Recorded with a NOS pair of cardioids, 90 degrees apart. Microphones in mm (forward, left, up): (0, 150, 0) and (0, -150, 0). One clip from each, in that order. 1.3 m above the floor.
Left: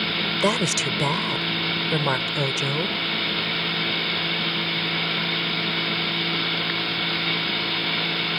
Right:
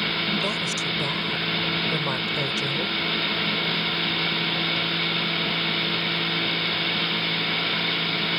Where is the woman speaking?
65° left; by 3.0 s 30° left.